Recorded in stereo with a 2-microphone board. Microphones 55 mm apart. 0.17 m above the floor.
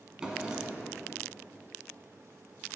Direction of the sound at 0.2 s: 15° right (ahead or behind).